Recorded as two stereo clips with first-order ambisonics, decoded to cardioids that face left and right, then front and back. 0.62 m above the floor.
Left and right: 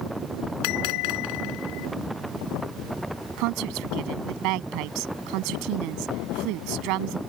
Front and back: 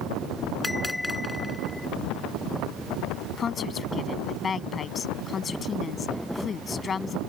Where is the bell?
85° left.